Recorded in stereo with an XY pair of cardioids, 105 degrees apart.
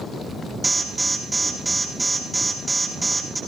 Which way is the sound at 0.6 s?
20° right.